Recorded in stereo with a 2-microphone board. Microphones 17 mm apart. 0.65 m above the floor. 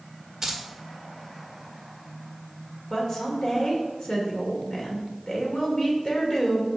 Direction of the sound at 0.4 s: 20° right (ahead or behind).